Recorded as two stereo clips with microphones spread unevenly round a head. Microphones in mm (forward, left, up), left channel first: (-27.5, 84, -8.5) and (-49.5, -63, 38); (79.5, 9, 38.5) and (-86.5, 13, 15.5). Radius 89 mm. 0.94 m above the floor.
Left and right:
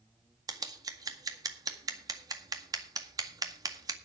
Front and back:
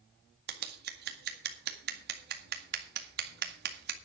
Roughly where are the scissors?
Behind.